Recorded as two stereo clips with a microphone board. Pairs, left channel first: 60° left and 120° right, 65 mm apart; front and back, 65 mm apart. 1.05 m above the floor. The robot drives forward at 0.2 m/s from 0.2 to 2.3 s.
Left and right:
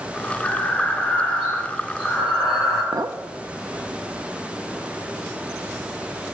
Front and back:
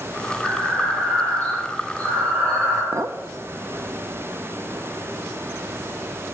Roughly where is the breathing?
Behind left.